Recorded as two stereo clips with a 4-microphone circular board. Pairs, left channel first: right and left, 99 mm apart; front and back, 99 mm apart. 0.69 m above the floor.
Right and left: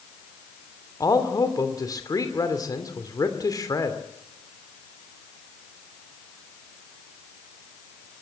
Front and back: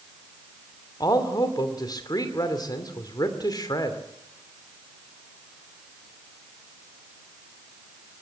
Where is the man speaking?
40° right, 2.5 m.